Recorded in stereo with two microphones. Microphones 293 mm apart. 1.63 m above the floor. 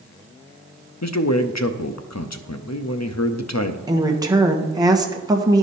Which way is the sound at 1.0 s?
70° left (ahead or behind).